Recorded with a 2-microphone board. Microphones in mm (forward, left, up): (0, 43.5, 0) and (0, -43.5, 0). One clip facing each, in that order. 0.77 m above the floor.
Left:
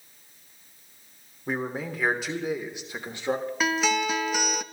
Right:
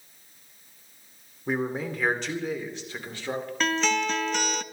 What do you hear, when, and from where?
1.5 s a man speaking: centre (ahead or behind), 3 m; by 3.5 s 25° left (ahead or behind), 2.5 m
3.6 s a guitar: 10° left (ahead or behind), 0.7 m